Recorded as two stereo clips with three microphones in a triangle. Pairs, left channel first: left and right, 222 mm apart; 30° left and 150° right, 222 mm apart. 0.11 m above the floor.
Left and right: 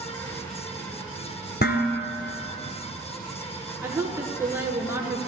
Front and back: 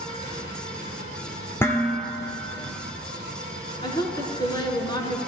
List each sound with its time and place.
0.0 s an insect: 160° left, 6 m
1.6 s dishes clattering: 105° left, 1.1 m
3.8 s a woman speaking: 25° right, 1.6 m